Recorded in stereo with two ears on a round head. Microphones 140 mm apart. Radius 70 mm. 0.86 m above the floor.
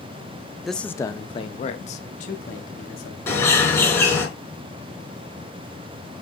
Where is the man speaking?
Centre (ahead or behind), 0.6 m; by 3.2 s 60° left (ahead or behind), 1.8 m.